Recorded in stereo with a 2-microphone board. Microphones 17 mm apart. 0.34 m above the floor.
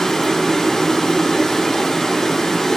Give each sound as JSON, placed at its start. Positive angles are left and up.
{"t": 0.0, "sound": "running water", "side_deg": 25, "distance_m": 1.5}